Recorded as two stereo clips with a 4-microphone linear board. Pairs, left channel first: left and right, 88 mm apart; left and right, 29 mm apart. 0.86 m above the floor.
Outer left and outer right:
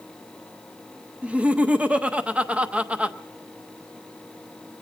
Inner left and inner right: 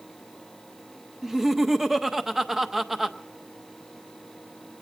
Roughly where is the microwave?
I don't hear a microwave.